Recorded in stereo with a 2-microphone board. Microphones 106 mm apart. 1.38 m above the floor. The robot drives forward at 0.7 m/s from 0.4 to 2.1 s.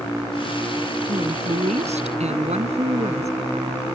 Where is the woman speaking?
75° right (ahead or behind); by 3.3 s 80° right.